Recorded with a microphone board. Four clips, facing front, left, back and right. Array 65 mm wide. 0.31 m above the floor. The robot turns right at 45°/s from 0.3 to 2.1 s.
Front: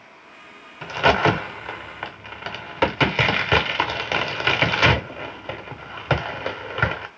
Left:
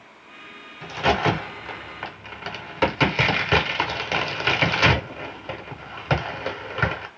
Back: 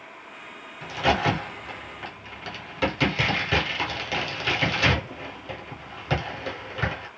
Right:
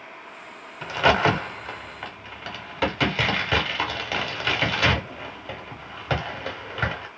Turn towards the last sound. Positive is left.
turn(degrees=15)